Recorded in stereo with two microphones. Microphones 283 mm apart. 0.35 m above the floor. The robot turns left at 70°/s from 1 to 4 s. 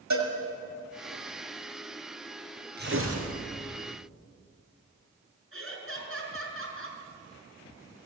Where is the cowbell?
75° right (ahead or behind), 5 m.